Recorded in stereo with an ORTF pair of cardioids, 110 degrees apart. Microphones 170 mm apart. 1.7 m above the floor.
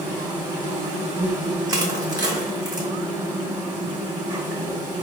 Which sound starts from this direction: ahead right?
An insect, at 0.0 s.